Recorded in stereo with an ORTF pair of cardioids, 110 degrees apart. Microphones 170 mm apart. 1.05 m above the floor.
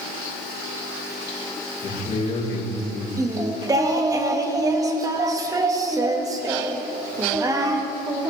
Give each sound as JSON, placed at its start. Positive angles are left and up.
{"t": 1.8, "sound": "a man speaking", "azimuth_deg": 40, "distance_m": 3.5}
{"t": 3.2, "sound": "singing", "azimuth_deg": -20, "distance_m": 1.0}